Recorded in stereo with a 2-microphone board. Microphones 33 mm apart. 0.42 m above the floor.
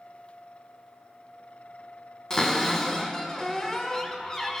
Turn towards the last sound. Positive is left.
turn(degrees=25)  # may be behind; listen again after turning